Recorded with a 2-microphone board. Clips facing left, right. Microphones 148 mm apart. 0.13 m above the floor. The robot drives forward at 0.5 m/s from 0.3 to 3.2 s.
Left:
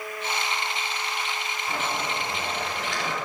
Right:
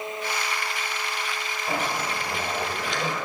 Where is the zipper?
25° right (ahead or behind), 2 m; by 3.1 s 20° right (ahead or behind), 3 m.